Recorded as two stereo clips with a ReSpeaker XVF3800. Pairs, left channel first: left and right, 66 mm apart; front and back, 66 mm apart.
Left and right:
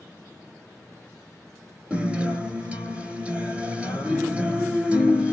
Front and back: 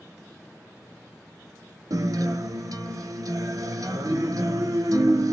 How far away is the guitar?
About 0.8 m.